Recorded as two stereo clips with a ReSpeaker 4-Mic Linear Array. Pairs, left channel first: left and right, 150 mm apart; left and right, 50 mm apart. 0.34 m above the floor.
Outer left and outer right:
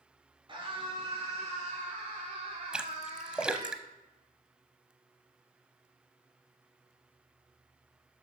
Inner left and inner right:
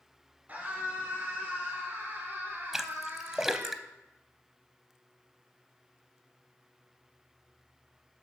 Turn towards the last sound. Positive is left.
turn(degrees=-5)  # may be behind; listen again after turning